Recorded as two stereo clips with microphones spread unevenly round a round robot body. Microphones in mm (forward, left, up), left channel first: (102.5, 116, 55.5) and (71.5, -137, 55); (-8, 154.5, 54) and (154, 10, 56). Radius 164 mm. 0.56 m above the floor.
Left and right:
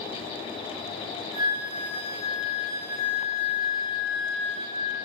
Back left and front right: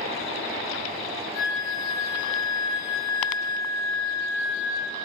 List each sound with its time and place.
1.3 s a flute: 110° right, 0.6 m